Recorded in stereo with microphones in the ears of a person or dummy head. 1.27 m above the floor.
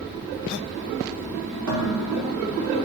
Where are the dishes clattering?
80° right, 2 m.